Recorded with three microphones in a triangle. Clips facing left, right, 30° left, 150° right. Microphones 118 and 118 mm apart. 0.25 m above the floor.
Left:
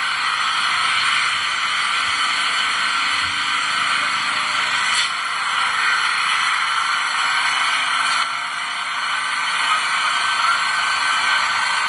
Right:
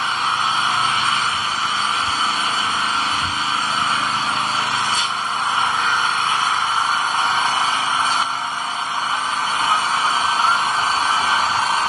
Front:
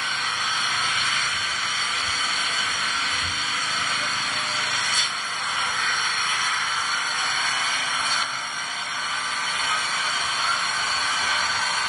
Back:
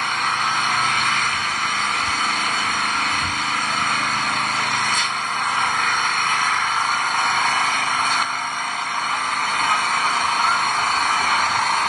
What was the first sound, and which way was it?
An engine running, 145° right.